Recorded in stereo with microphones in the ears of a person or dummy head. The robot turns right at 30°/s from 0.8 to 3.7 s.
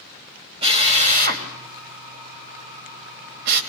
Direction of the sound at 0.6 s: 35° right (ahead or behind).